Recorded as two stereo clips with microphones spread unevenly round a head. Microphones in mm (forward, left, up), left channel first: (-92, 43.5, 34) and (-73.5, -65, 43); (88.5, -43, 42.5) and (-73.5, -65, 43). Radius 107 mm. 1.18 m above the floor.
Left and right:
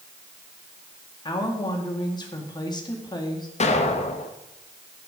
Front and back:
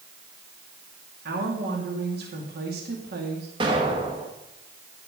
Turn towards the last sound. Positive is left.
turn(degrees=120)